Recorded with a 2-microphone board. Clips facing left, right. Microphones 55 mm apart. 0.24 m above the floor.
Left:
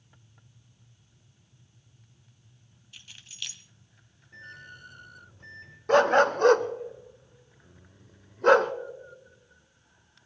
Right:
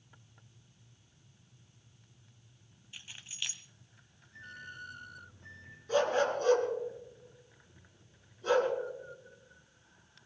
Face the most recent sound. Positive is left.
turn(degrees=65)  # may be behind; listen again after turning